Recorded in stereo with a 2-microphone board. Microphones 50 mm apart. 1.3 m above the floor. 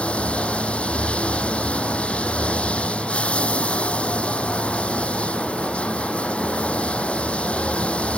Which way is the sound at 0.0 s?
25° left (ahead or behind).